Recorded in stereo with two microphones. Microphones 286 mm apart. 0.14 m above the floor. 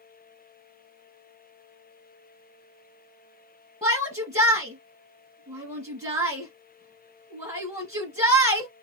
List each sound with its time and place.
3.8 s a shout: 15° right (ahead or behind), 1.4 m